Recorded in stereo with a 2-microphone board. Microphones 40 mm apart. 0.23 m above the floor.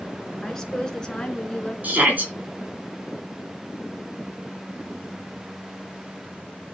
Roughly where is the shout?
Right.